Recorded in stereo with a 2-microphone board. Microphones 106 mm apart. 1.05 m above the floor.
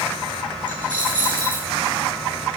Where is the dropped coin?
45° right (ahead or behind), 5.5 m.